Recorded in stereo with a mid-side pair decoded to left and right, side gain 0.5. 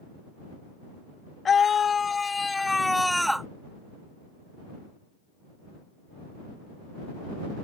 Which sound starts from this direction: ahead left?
A scream, at 1.4 s.